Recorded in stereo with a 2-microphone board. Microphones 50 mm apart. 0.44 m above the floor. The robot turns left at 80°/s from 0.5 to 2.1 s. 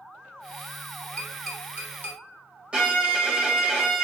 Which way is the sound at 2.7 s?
20° right (ahead or behind).